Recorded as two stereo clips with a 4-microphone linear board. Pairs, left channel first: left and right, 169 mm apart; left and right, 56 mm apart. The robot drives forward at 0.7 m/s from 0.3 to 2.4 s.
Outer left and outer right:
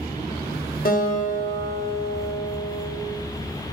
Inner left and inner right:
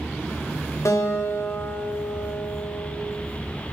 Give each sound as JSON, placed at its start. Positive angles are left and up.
{"t": 0.8, "sound": "a guitar", "side_deg": 65, "distance_m": 0.9}